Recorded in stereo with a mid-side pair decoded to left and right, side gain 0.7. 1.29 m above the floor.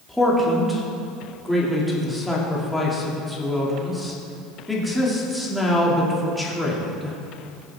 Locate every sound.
0.1 s a man speaking: 5° left, 2.5 m